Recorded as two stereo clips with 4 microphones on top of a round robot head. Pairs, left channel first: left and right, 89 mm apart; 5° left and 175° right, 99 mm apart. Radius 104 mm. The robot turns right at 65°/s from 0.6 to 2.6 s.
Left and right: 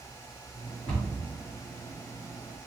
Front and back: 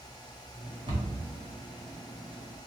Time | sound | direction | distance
0.9 | a cupboard door | 150° left | 2.0 m